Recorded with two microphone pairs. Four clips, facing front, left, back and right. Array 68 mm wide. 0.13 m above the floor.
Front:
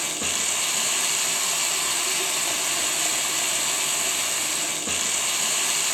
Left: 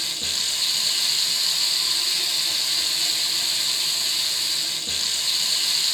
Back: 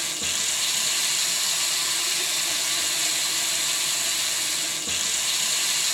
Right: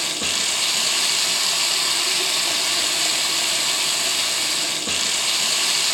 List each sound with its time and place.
0.0 s running water: 55° right, 0.7 m